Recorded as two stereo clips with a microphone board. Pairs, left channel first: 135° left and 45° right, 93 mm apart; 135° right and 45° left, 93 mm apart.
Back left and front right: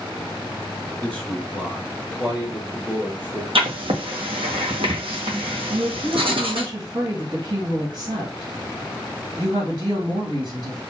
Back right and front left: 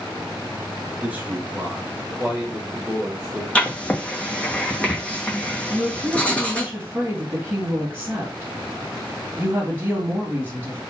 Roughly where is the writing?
Ahead right.